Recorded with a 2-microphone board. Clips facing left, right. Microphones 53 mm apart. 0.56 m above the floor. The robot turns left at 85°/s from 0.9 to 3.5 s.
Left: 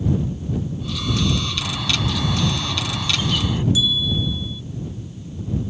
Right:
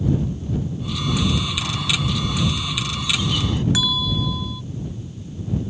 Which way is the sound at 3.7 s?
85° right.